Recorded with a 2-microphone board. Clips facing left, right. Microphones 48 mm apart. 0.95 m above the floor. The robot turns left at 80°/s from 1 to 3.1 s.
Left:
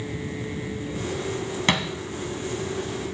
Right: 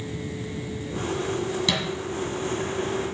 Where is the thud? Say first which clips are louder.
Left 7 dB; 50° left (ahead or behind), 1.7 m; by 1.9 s 60° left (ahead or behind), 1.7 m.